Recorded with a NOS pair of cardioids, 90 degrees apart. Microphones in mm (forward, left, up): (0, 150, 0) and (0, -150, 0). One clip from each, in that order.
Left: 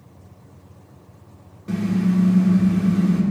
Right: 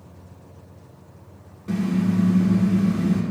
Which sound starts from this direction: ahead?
A car horn, at 1.7 s.